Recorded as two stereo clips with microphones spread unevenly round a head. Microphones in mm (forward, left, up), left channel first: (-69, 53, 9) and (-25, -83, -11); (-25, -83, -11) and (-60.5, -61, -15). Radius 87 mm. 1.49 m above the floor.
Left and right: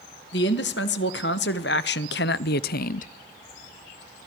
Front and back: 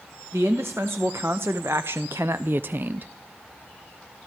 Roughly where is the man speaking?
Left.